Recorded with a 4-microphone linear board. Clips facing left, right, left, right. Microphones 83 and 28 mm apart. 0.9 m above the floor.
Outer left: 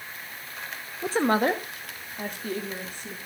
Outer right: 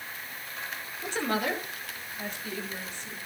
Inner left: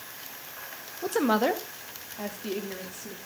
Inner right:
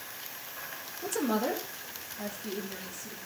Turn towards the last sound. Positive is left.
turn(degrees=55)  # may be behind; listen again after turning